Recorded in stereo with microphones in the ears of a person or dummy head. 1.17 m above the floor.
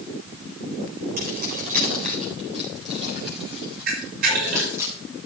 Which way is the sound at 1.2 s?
50° right (ahead or behind).